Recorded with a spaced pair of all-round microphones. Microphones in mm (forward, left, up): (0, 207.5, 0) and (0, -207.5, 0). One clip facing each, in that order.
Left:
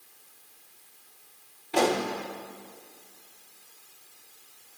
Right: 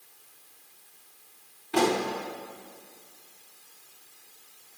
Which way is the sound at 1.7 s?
25° right (ahead or behind).